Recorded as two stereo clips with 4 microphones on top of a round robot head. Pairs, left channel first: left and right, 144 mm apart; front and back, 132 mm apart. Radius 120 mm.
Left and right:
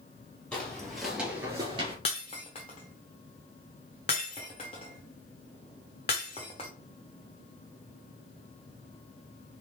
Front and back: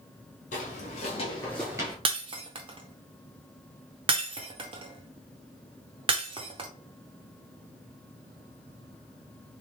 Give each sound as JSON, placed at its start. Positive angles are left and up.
{"t": 0.5, "sound": "footsteps", "azimuth_deg": 5, "distance_m": 1.7}
{"t": 2.0, "sound": "breaking glass", "azimuth_deg": 150, "distance_m": 0.7}